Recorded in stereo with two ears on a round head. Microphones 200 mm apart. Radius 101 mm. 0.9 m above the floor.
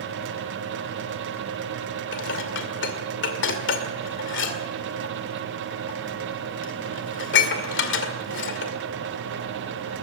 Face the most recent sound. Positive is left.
turn(degrees=60)  # may be behind; listen again after turning